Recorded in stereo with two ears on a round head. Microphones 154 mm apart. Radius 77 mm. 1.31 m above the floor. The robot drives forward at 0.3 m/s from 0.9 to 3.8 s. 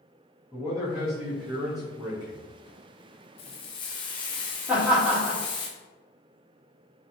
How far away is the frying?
About 0.6 m.